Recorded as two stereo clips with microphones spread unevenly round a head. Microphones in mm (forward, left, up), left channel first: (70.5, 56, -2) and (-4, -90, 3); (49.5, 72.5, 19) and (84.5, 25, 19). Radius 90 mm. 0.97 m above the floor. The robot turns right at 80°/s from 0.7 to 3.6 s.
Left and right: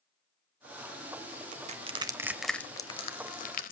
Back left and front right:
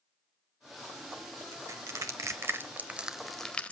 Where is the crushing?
105° right, 0.9 m; by 3.7 s 65° left, 0.9 m.